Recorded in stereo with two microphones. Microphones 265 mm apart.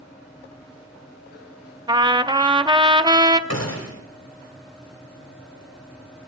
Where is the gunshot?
65° left (ahead or behind), 3 m.